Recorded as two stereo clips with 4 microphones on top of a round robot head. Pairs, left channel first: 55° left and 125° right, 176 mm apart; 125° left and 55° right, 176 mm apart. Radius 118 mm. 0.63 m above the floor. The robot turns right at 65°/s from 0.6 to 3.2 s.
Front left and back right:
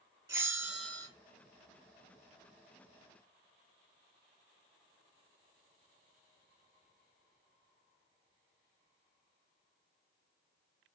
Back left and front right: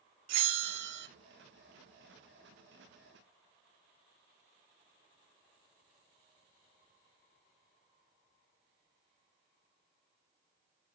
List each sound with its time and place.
0.3 s a bell: 50° right, 0.5 m; by 1.1 s 20° right, 0.5 m